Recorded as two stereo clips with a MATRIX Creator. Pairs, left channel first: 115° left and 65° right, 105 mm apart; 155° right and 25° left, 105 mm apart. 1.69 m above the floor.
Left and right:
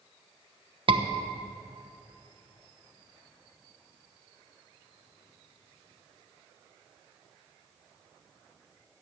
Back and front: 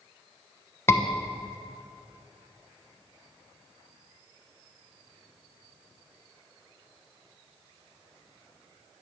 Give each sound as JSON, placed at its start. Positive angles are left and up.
{"t": 0.9, "sound": "a scream", "azimuth_deg": -95, "distance_m": 1.1}